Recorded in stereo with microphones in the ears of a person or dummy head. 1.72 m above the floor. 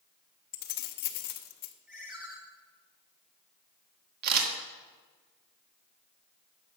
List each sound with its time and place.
0.5 s keys jangling: 50° left (ahead or behind), 1.0 m
1.9 s a ringtone: 10° right (ahead or behind), 1.9 m
4.2 s a camera shutter: 50° right (ahead or behind), 1.9 m